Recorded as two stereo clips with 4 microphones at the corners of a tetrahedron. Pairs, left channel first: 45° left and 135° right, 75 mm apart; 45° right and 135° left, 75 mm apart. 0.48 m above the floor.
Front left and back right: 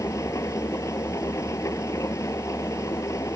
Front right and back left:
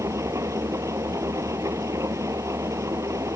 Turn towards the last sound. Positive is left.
turn(degrees=90)